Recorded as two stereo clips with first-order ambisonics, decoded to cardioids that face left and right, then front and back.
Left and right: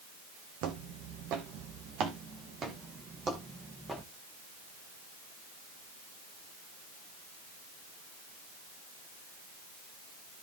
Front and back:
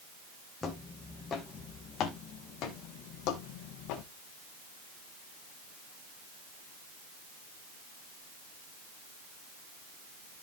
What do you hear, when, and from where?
0.6 s footsteps: 75° right, 1.6 m; by 4.0 s 5° right, 1.8 m